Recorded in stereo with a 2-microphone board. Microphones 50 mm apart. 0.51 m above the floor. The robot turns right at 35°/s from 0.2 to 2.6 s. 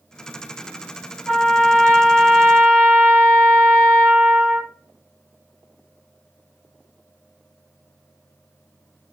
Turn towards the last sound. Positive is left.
turn(degrees=-155)